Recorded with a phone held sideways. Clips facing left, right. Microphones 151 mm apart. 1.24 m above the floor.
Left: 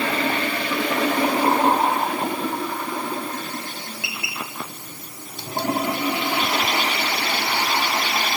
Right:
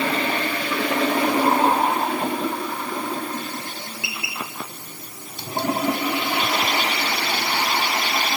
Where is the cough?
No cough in this recording.